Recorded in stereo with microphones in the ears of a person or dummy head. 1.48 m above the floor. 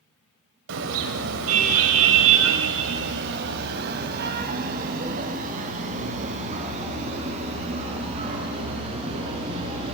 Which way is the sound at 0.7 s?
70° right (ahead or behind).